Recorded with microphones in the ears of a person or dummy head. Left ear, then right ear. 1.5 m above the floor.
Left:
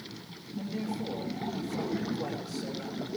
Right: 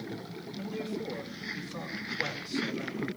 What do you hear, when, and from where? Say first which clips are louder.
0.6 s a man speaking: even; 65° right (ahead or behind), 6.5 m